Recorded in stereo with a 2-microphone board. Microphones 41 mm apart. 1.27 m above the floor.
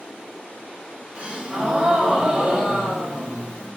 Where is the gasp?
25° right (ahead or behind), 1.1 m.